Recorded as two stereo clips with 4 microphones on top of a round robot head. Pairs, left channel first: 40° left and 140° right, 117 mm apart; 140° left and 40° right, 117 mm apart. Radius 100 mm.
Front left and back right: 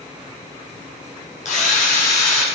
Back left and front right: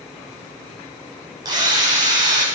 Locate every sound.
1.4 s a drill: 20° left, 5 m